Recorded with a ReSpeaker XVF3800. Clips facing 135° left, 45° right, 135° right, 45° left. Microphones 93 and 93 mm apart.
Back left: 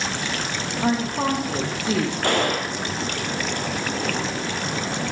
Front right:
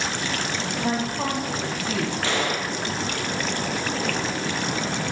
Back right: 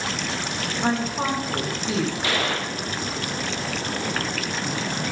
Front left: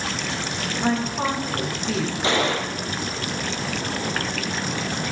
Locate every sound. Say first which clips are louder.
0.8 s a woman speaking: back left 5 dB, front left 1 dB; 135° left, 5 m; by 2.1 s 145° left, 5 m
2.2 s a gunshot: back left 3 dB, front left 3 dB; 105° left, 1.7 m